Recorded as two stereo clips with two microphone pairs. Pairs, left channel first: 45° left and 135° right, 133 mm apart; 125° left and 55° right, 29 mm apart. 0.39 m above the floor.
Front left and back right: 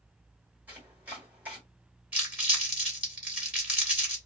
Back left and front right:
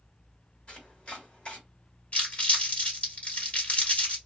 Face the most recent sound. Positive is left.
turn(degrees=150)